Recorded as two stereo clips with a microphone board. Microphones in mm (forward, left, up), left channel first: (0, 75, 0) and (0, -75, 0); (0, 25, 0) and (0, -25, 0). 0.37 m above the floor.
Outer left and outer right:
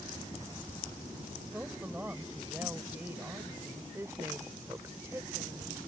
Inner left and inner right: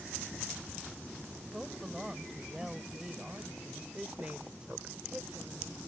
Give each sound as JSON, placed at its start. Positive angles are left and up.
{"t": 1.5, "sound": "a woman speaking", "side_deg": -15}
{"t": 3.9, "sound": "a woman speaking", "side_deg": -20}